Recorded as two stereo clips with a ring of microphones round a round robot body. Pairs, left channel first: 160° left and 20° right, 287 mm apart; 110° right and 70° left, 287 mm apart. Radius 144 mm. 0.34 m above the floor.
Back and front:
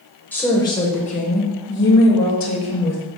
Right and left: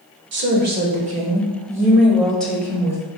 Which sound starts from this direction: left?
A woman speaking, at 0.3 s.